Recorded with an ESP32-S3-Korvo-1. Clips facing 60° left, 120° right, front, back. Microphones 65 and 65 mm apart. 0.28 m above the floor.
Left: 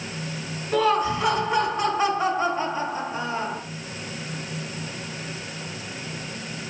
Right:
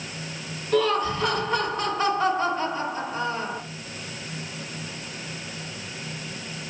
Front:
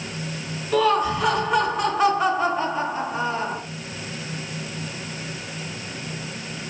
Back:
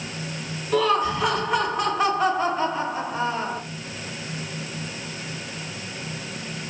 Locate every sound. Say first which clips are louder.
0.7 s laughter: left 1 dB, front 1 dB; 80° left, 1.2 m